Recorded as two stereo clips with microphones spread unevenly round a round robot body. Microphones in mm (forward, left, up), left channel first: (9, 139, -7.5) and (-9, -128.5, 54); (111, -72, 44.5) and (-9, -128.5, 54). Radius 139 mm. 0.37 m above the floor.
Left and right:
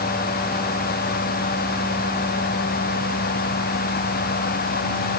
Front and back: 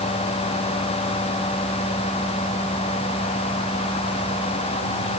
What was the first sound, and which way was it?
Only background noise.